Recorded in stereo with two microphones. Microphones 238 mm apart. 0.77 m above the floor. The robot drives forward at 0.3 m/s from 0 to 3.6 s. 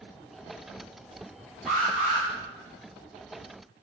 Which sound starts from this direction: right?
An alarm, at 1.7 s.